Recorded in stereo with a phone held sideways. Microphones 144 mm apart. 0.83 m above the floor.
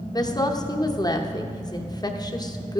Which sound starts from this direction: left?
A woman speaking, at 0.1 s.